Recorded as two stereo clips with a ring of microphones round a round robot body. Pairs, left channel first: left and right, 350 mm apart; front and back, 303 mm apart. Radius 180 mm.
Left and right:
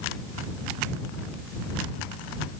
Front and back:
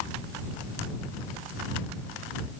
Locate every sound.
Only background noise.